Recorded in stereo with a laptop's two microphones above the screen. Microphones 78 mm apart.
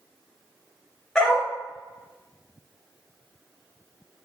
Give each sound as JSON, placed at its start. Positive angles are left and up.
{"t": 1.1, "sound": "a dog barking", "side_deg": 10, "distance_m": 0.6}